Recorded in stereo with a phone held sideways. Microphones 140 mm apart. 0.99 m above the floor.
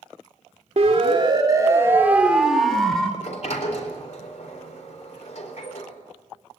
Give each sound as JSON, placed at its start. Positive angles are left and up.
{"t": 0.8, "sound": "a siren", "side_deg": -50, "distance_m": 2.5}
{"t": 3.2, "sound": "a sliding door", "side_deg": 55, "distance_m": 4.0}